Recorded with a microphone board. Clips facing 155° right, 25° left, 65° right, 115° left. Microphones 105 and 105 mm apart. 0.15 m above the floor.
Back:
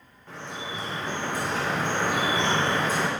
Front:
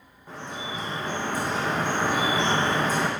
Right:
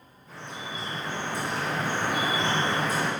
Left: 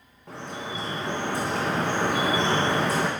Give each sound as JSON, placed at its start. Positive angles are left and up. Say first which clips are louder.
{"t": 0.3, "sound": "dripping", "louder": "front 1 dB, left 4 dB", "azimuth_deg": 100, "distance_m": 2.5}